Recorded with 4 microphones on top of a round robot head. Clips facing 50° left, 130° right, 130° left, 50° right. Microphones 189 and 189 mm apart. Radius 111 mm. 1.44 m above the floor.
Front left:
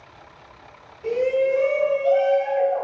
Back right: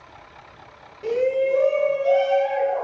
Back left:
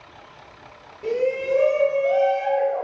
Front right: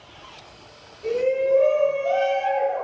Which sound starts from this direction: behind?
A shout, at 1.0 s.